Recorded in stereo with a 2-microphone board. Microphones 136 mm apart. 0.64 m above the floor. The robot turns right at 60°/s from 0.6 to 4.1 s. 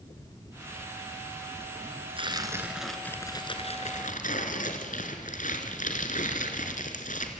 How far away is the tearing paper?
About 2.5 m.